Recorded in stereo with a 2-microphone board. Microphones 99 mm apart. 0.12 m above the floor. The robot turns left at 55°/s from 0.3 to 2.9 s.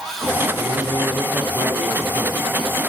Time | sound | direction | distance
0.6 | a man speaking | 110° right | 5 m